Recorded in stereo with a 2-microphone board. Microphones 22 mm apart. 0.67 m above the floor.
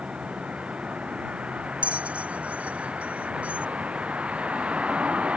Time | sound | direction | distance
0.0 | a vehicle | 65° right (ahead or behind) | ?
1.8 | a bell | 75° right (ahead or behind) | ?